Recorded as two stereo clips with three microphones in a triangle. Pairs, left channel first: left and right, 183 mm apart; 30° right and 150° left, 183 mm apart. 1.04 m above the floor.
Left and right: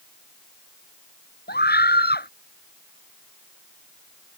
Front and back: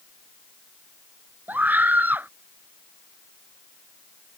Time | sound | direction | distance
1.5 | a scream | 70° left | ?